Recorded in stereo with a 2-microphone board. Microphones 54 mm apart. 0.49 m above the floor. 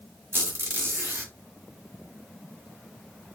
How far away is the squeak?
About 1.5 m.